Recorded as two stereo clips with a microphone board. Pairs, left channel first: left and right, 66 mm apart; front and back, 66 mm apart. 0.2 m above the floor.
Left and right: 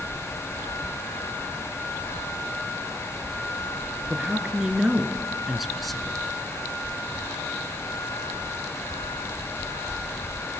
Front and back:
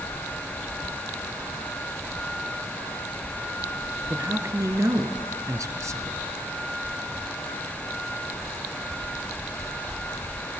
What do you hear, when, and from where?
4.1 s a man speaking: 155° right, 3 m; by 6.2 s 175° left, 2 m